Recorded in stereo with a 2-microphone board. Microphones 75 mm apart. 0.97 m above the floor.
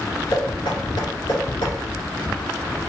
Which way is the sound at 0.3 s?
75° left (ahead or behind).